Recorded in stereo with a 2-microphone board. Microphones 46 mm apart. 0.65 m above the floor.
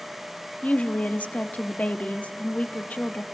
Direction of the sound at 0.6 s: 35° left (ahead or behind).